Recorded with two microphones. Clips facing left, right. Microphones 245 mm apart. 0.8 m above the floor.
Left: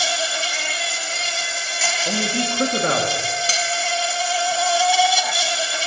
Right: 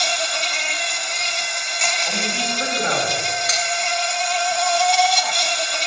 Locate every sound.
0.0 s an insect: 5° left (ahead or behind), 0.7 m
2.0 s a man speaking: 50° left (ahead or behind), 1.8 m
3.5 s cutlery clinking: 30° left (ahead or behind), 0.6 m